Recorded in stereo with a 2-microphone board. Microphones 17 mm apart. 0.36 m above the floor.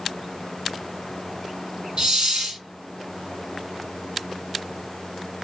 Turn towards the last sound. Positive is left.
turn(degrees=-60)  # may be behind; listen again after turning